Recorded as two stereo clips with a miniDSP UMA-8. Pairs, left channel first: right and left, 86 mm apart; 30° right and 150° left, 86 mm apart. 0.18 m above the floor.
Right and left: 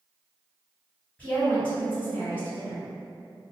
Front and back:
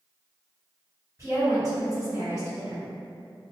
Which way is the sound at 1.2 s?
165° right.